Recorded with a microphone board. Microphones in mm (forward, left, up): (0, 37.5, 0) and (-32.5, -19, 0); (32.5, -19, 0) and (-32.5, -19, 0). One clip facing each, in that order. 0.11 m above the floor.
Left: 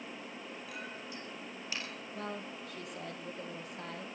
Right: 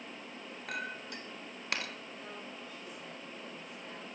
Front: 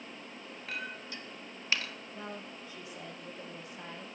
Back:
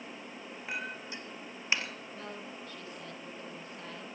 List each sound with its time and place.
0.7 s a clink: 110° right, 1.8 m
2.1 s a woman speaking: 75° left, 3.5 m